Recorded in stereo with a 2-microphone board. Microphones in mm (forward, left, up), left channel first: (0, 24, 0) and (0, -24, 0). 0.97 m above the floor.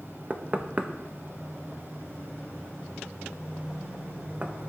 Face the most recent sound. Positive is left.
turn(degrees=-35)  # may be behind; listen again after turning